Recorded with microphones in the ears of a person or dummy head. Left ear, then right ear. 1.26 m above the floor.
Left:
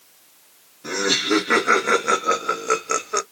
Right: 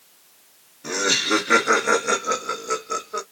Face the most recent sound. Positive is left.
turn(degrees=60)  # may be behind; listen again after turning